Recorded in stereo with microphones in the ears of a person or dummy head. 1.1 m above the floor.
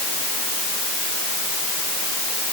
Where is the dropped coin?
No dropped coin in this recording.